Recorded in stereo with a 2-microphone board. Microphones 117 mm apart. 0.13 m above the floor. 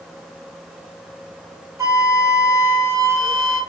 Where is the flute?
30° right (ahead or behind), 2.0 m.